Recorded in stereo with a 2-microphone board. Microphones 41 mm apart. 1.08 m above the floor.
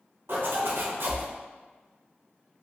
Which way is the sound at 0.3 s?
65° right (ahead or behind).